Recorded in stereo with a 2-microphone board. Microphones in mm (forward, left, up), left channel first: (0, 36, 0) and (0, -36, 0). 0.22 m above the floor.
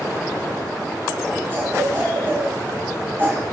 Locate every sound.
1.5 s a cough: 30° right (ahead or behind), 1.9 m